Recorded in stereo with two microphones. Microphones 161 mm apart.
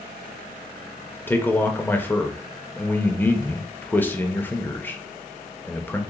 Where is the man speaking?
10° left (ahead or behind), 0.6 m.